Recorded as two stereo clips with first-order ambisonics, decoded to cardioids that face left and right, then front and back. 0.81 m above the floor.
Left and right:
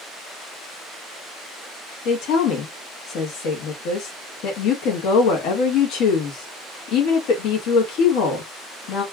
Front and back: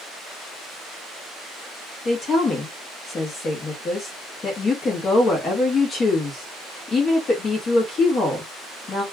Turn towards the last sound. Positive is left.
turn(degrees=65)